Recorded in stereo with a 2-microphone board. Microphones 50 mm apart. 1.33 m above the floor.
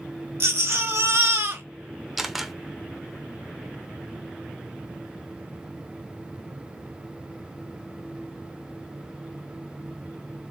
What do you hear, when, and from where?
0.4 s a baby crying: 60° right (ahead or behind), 0.9 m
2.2 s a camera shutter: 5° right (ahead or behind), 0.7 m